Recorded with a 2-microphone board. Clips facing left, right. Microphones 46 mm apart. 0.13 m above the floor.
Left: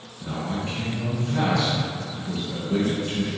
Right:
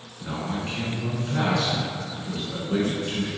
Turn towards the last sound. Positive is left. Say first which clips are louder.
# left 1 dB
turn(degrees=-25)  # may be behind; listen again after turning